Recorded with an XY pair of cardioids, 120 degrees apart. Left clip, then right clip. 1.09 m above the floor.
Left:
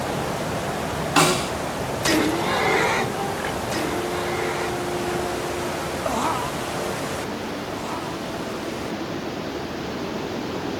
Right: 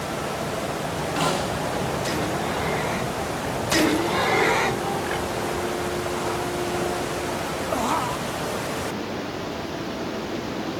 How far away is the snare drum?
About 8.5 m.